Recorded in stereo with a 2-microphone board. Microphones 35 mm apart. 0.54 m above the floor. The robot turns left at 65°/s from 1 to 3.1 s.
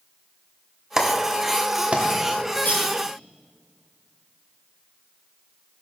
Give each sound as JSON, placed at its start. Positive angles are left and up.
{"t": 1.0, "sound": "a clap", "side_deg": -15, "distance_m": 1.0}
{"t": 2.6, "sound": "cutlery clinking", "side_deg": 80, "distance_m": 3.5}